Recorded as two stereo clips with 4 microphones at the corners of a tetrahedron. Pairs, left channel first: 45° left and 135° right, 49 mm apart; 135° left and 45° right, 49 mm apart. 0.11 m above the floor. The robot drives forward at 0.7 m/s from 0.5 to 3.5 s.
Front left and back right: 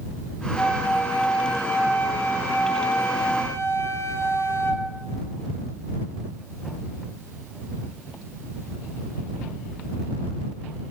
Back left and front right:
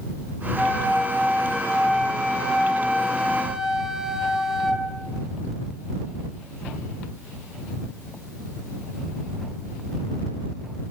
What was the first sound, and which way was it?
A flute, 20° left.